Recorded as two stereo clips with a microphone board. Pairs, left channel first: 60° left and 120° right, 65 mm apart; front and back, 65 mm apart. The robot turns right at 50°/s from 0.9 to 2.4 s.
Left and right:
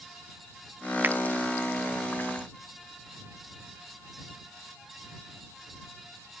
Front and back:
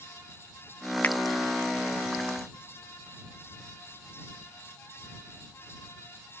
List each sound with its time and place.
1.0 s a finger snap: 65° right; by 1.2 s 55° right